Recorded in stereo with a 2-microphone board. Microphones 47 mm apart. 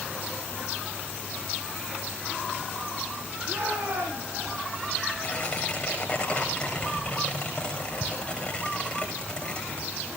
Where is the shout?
80° right, 7 m; by 4.5 s 70° right (ahead or behind), 6 m.